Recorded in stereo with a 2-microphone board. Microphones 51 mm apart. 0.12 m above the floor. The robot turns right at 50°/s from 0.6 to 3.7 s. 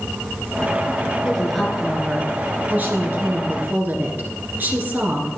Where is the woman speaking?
165° left, 2 m; by 5.3 s 75° right, 2 m.